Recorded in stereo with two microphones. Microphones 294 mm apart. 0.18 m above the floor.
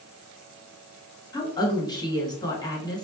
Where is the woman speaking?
15° left (ahead or behind), 1.6 m.